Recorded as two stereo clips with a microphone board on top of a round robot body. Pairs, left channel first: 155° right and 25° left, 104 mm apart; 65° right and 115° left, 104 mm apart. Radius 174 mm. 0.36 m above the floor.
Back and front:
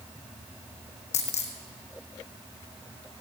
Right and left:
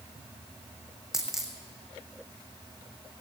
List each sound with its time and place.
1.1 s a dropped coin: 160° right, 1.9 m